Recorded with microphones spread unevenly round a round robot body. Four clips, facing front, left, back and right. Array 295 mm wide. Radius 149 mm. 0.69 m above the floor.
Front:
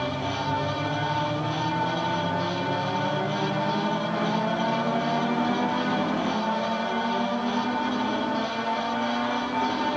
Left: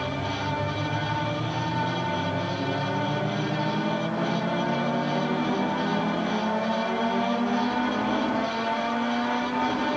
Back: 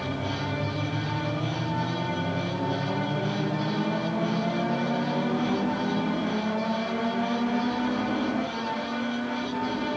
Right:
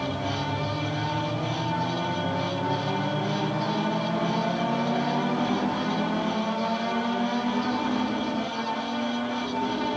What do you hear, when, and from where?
Only background noise.